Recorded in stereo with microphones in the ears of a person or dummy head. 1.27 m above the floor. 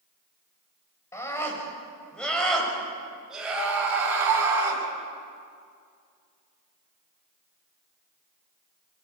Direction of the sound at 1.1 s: 20° left (ahead or behind).